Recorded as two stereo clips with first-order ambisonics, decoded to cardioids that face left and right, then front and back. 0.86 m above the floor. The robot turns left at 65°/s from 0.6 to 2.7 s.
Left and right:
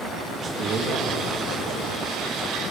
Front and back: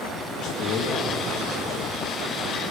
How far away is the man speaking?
About 0.9 m.